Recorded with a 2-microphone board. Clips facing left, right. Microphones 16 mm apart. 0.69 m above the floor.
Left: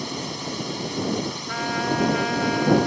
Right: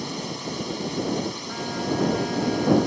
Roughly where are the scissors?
No scissors in this recording.